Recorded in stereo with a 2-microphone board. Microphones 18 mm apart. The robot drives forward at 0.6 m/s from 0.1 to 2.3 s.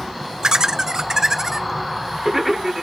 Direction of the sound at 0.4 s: 35° right (ahead or behind).